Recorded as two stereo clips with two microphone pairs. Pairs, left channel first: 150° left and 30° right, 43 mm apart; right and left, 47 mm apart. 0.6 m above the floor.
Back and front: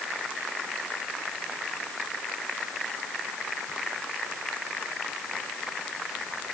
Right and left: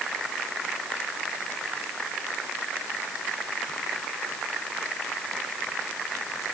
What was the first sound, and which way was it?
Only background noise.